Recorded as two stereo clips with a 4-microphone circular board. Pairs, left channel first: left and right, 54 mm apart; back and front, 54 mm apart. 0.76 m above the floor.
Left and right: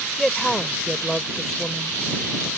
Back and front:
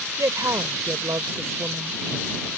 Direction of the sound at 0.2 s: 10° left.